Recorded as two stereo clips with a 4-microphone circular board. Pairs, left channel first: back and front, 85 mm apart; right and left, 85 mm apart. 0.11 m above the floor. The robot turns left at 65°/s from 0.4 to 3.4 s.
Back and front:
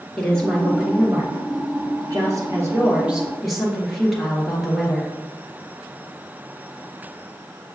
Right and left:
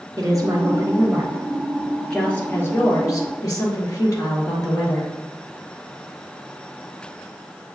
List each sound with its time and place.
0.2 s a woman speaking: 105° left, 1.7 m; by 5.1 s 90° right, 1.7 m